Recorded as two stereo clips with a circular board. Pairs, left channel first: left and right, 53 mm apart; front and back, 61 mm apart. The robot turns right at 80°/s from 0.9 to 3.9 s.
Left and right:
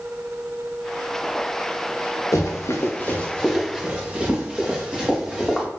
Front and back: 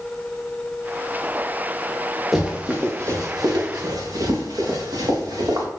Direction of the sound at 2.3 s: 95° left.